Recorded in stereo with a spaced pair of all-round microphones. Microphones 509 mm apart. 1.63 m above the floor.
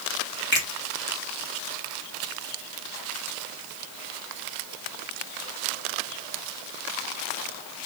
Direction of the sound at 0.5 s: 20° left (ahead or behind).